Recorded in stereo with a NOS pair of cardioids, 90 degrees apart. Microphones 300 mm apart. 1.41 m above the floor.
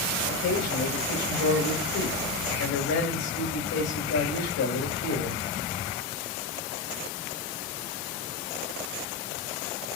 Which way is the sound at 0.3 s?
70° left.